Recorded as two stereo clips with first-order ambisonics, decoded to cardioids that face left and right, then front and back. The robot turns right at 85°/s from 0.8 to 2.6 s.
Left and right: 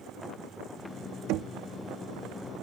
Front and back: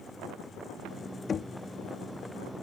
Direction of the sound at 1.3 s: 65° right.